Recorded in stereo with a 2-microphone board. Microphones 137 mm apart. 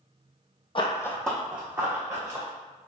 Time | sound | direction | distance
0.8 | running footsteps | 40° left (ahead or behind) | 0.6 m